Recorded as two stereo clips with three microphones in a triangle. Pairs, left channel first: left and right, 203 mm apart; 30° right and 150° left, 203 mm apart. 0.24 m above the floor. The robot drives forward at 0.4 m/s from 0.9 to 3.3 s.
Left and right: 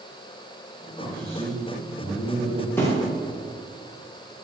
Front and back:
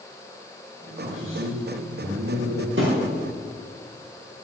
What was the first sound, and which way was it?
A man speaking, 165° left.